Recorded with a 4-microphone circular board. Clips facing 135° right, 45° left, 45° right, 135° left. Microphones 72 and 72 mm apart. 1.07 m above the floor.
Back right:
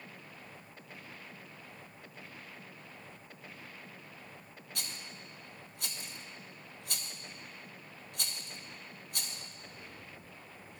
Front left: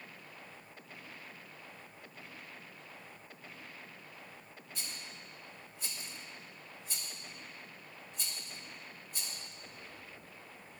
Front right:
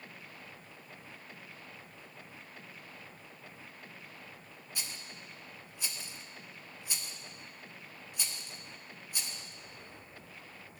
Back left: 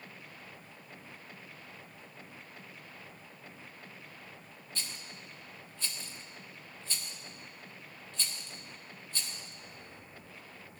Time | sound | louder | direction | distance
4.8 | a rattle | back right 2 dB, back left 1 dB | 120° right | 0.6 m